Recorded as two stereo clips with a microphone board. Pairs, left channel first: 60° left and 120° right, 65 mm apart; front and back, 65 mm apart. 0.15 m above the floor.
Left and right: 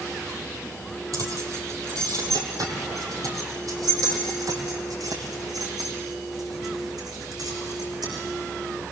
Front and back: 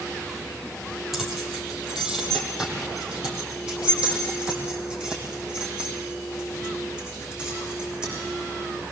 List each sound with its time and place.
1.1 s keys jangling: 95° right, 4 m; by 8.1 s 105° right, 7.5 m